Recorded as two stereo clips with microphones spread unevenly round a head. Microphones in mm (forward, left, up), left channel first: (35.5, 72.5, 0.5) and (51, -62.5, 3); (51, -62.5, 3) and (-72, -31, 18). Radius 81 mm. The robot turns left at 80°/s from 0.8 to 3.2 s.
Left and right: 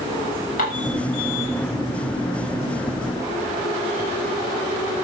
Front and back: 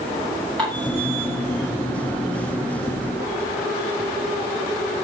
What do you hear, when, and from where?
0.6 s dishes clattering: 70° left, 8 m; by 0.9 s 65° left, 8 m